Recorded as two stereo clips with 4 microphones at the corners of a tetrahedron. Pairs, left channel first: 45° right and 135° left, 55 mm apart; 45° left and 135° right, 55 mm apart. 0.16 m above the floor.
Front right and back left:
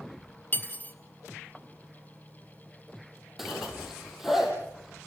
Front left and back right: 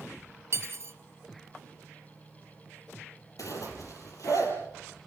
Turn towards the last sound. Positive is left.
turn(degrees=50)